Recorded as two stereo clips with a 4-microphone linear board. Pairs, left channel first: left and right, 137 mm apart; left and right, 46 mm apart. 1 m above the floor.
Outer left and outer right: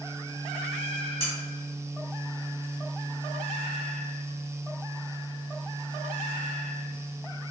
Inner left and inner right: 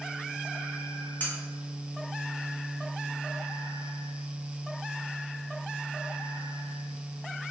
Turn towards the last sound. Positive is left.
turn(degrees=40)  # may be behind; listen again after turning